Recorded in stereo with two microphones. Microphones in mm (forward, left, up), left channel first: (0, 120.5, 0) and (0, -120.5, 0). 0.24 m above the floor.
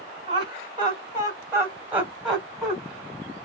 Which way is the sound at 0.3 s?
25° right (ahead or behind).